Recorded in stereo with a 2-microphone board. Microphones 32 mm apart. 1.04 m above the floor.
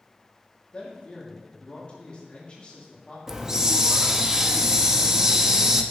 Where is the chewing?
No chewing in this recording.